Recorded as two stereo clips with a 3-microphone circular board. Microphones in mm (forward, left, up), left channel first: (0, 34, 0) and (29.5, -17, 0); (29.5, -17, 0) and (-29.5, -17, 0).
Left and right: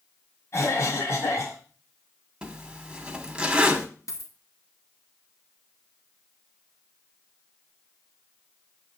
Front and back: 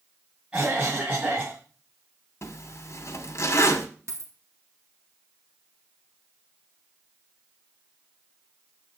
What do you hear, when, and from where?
0.5 s a cough: 115° left, 1.7 m
2.4 s a zipper: 15° left, 1.3 m
4.1 s a dropped coin: 145° left, 1.6 m